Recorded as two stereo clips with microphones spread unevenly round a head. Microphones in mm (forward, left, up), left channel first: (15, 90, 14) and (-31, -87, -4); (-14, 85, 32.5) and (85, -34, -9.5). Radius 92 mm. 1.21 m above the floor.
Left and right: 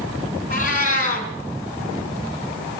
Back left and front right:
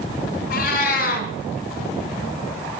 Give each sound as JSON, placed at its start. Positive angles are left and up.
{"t": 0.5, "sound": "a cat meowing", "azimuth_deg": 120, "distance_m": 3.0}